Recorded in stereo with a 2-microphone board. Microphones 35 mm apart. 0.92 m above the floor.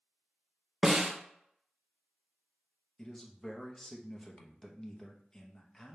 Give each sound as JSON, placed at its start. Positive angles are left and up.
{"t": 0.8, "sound": "a snare drum", "side_deg": -15, "distance_m": 0.7}
{"t": 3.0, "sound": "a man speaking", "side_deg": 20, "distance_m": 0.7}